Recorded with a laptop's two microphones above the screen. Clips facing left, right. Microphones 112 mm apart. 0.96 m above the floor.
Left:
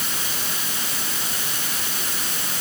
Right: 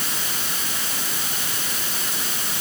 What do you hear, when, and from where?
Only background noise.